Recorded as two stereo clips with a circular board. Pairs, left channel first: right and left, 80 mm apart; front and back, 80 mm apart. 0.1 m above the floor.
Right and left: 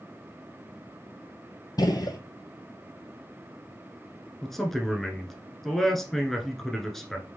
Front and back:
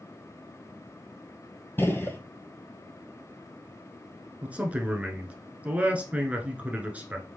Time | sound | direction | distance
1.8 | a gunshot | 60° right | 0.9 m
4.4 | a man speaking | 170° right | 1.1 m